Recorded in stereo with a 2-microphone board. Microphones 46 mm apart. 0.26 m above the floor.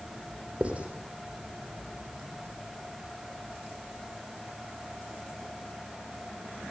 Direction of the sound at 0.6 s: 30° right (ahead or behind).